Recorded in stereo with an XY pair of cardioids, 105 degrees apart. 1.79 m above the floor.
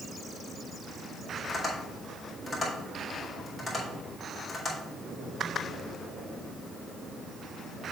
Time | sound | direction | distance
1.5 | tapping | 10° left | 3.5 m